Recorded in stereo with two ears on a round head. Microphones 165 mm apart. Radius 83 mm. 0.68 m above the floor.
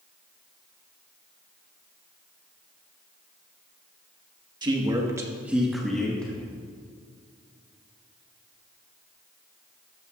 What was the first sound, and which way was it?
A man speaking, 25° right (ahead or behind).